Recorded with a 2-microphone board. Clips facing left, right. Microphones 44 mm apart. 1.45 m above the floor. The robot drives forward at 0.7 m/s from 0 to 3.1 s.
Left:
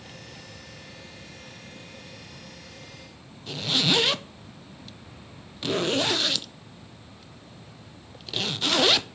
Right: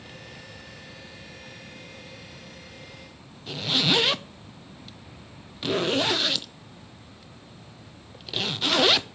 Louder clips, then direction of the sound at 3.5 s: Even; 5° right (ahead or behind).